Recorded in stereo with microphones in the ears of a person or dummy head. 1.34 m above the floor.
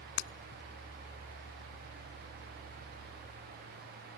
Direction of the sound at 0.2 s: 70° left (ahead or behind).